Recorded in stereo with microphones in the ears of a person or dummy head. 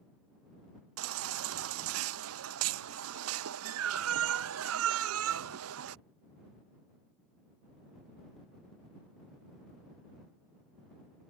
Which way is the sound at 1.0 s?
75° right (ahead or behind).